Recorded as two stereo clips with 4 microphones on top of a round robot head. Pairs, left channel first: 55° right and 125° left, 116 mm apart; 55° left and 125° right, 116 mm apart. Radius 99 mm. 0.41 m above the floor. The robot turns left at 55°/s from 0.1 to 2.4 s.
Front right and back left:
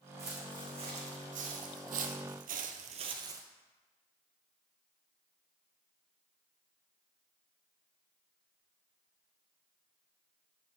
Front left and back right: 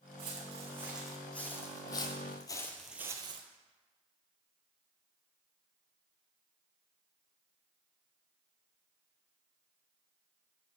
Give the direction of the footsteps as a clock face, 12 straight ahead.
6 o'clock.